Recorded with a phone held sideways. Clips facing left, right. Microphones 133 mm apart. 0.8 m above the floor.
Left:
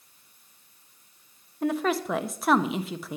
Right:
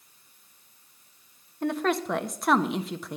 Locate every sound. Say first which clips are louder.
1.6 s a woman speaking: left 1 dB; 5° left (ahead or behind), 0.6 m